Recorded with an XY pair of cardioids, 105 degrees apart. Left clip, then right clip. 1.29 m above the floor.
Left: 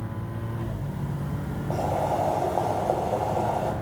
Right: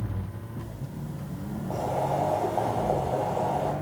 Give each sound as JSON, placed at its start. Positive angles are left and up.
{"t": 1.7, "sound": "boiling", "azimuth_deg": 30, "distance_m": 8.0}